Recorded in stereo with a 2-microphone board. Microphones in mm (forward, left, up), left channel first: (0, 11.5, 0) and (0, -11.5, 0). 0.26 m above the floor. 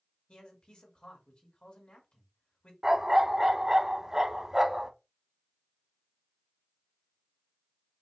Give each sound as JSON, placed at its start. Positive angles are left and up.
{"t": 0.3, "sound": "a man speaking", "side_deg": 50, "distance_m": 1.7}
{"t": 2.8, "sound": "a dog barking", "side_deg": -25, "distance_m": 0.6}